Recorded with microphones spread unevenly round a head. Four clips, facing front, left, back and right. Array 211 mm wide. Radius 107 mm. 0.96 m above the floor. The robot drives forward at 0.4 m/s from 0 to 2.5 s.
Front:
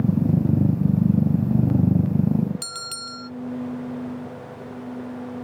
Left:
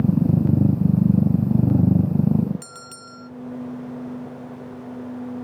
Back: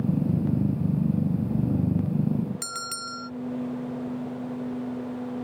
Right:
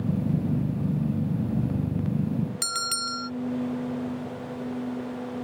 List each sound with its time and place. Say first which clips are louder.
2.6 s a bell: right 8 dB, back 2 dB; 85° right